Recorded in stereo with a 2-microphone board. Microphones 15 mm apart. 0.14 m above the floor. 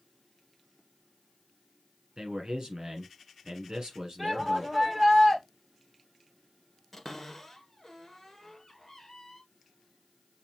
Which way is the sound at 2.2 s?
55° right (ahead or behind).